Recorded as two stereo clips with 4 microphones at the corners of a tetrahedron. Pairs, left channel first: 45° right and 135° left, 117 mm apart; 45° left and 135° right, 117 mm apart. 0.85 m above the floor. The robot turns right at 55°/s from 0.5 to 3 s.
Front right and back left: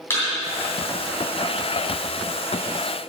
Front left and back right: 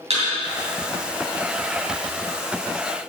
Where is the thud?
115° right, 2.5 m.